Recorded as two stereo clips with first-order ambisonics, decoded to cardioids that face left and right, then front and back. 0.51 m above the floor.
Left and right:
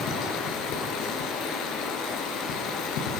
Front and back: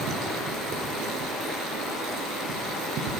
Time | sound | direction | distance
0.0 | running water | 130° left | 4 m